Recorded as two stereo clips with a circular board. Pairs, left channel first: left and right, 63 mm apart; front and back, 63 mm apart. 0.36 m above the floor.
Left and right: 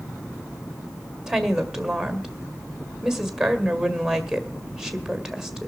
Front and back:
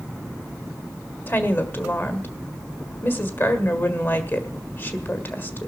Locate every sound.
1.3 s a woman speaking: 10° right, 1.7 m